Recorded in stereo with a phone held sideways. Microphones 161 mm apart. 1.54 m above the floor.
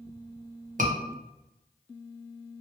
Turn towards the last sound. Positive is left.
turn(degrees=-55)  # may be behind; listen again after turning